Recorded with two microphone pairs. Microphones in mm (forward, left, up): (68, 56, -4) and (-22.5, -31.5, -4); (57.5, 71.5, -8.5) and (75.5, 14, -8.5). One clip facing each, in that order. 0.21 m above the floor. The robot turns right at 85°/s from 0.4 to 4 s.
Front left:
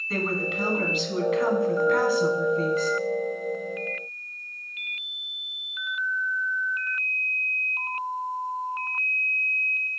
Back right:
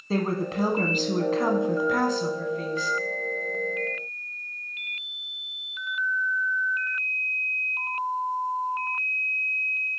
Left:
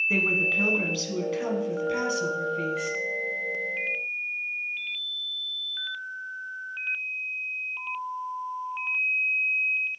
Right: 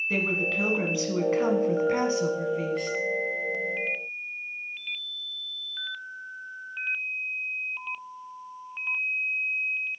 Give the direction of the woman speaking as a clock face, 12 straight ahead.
6 o'clock.